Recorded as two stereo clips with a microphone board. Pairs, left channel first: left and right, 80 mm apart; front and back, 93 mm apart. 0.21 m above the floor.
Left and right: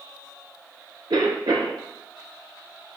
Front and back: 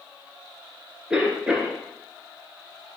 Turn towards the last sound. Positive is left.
turn(degrees=-100)